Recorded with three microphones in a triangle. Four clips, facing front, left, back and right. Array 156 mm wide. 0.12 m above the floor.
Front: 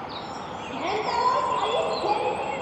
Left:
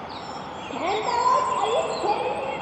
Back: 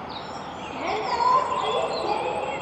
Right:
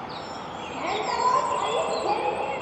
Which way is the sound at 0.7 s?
80° left.